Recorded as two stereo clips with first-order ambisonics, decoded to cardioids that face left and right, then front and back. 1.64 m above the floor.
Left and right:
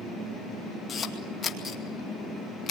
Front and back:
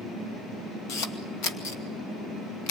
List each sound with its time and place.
0.9 s a camera shutter: 25° left, 2.5 m